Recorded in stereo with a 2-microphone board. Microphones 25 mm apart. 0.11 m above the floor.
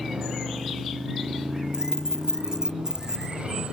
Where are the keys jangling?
30° right (ahead or behind).